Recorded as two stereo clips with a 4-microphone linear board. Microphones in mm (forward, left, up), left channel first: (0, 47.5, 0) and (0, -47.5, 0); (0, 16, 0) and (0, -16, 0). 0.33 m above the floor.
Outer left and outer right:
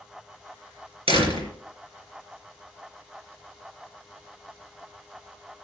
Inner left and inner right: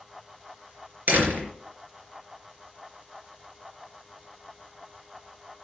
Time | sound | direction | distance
1.1 | a door slam | 70° right (ahead or behind) | 4 m